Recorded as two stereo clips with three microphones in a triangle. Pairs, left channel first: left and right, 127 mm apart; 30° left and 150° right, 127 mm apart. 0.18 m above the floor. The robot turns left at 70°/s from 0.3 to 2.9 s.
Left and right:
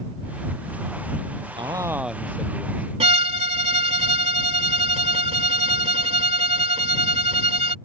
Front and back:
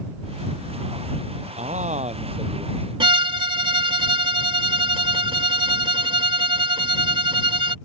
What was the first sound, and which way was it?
A man speaking, 135° right.